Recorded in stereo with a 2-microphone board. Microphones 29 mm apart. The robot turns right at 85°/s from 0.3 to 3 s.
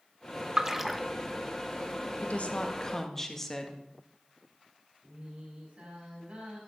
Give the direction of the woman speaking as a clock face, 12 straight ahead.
9 o'clock.